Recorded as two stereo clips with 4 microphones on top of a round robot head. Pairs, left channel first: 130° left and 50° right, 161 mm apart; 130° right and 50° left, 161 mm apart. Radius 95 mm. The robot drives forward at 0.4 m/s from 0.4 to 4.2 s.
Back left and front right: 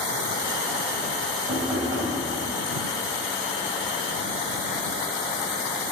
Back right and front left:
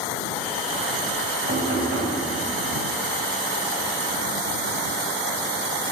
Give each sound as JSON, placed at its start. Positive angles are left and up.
{"t": 1.5, "sound": "knocking", "azimuth_deg": 15, "distance_m": 3.0}